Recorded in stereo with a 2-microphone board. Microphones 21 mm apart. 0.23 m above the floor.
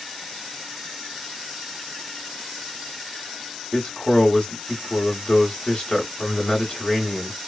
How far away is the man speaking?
About 1.0 m.